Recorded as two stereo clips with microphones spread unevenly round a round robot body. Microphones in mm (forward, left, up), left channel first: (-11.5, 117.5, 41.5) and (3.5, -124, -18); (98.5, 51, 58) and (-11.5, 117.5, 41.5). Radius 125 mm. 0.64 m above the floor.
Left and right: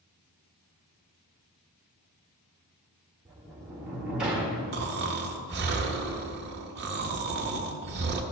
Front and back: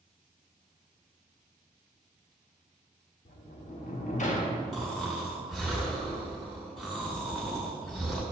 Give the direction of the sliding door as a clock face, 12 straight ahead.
12 o'clock.